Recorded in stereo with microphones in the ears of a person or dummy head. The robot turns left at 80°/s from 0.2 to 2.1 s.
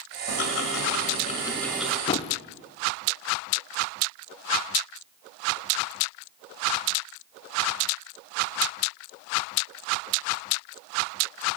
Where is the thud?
25° left (ahead or behind), 1.2 m; by 2.4 s 30° left (ahead or behind), 1.2 m.